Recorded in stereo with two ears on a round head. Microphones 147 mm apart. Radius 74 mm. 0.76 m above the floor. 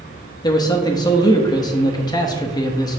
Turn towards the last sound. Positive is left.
turn(degrees=25)  # may be behind; listen again after turning